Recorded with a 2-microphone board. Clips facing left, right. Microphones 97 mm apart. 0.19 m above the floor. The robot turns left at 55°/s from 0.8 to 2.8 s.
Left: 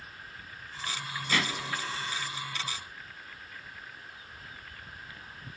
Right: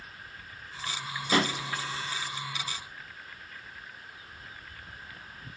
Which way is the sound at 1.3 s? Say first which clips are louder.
Right 5 dB; 30° right (ahead or behind).